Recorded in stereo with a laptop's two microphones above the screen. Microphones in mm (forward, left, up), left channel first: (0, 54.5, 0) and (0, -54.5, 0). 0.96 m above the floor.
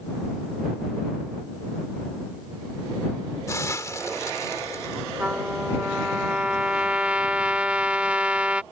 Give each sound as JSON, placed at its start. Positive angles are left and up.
{"t": 3.5, "sound": "a hiss", "side_deg": 30}
{"t": 5.2, "sound": "a trumpet", "side_deg": -10}